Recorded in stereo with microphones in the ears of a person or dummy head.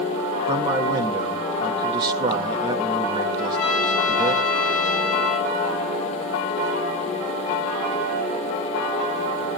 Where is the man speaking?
20° right (ahead or behind), 2.5 m.